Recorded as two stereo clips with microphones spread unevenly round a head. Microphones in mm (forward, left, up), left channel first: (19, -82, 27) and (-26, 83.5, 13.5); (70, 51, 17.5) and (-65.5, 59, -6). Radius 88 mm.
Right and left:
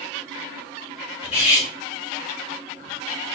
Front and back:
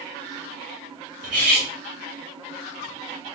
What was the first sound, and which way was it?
Cutlery clinking, 130° right.